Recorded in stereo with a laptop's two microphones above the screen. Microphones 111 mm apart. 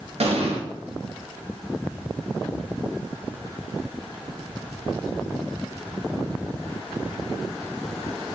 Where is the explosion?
65° right (ahead or behind), 0.6 m.